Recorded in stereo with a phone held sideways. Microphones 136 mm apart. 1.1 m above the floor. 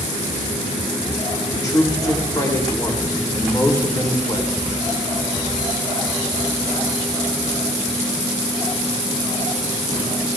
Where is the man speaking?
25° left (ahead or behind), 3 m.